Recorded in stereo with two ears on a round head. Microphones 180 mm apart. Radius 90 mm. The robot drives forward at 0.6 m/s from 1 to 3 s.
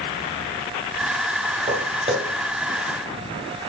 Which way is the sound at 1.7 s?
35° right (ahead or behind).